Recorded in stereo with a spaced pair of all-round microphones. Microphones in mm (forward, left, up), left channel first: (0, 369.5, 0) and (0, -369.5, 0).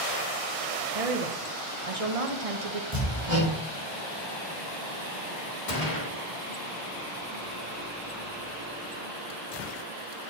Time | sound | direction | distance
0.9 | a woman speaking | 50° right (ahead or behind) | 1.1 m
2.9 | hammering | 25° right (ahead or behind) | 3.5 m
5.7 | a gunshot | 90° left | 1.7 m